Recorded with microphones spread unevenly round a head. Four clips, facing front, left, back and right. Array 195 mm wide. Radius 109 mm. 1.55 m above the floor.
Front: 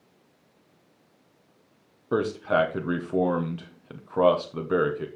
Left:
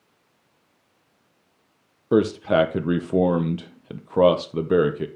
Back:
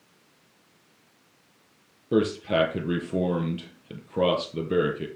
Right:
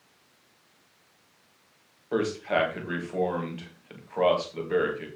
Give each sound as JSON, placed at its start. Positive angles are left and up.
{"t": 2.1, "sound": "a man speaking", "azimuth_deg": 75, "distance_m": 1.1}